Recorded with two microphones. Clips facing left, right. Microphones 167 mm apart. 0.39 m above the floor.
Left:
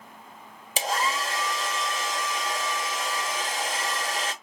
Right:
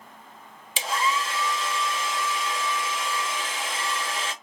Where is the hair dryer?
45° left (ahead or behind), 0.6 m.